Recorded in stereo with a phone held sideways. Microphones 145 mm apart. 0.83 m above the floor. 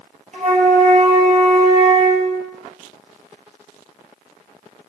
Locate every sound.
0.3 s a flute: 55° right (ahead or behind), 3 m